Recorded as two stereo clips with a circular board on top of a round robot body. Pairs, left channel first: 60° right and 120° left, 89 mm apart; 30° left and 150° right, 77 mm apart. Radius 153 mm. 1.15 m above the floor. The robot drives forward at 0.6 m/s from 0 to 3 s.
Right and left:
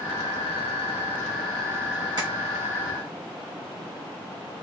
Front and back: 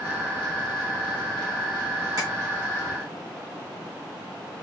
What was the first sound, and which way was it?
Tapping, 165° left.